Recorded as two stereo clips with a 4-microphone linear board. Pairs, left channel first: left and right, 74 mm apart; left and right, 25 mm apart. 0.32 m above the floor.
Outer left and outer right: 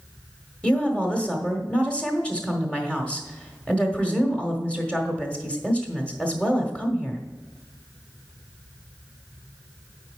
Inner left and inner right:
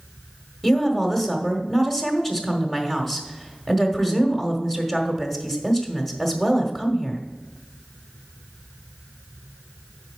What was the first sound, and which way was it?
A woman speaking, 15° left (ahead or behind).